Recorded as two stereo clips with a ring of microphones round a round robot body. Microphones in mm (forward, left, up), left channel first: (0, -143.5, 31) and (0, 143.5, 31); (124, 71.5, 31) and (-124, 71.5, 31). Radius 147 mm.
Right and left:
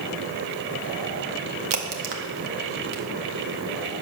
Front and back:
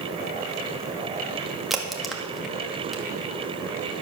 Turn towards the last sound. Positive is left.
turn(degrees=90)